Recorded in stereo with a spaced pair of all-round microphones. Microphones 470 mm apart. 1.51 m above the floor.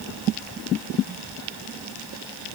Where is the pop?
I don't hear a pop.